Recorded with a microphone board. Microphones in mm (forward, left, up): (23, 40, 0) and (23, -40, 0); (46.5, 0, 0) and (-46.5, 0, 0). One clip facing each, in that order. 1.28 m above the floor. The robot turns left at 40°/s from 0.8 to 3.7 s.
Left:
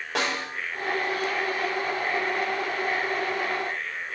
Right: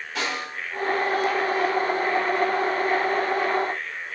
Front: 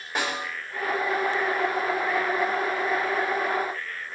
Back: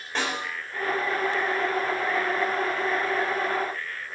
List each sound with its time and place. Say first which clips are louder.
0.1 s a snare drum: left 1 dB, even; 80° left, 6 m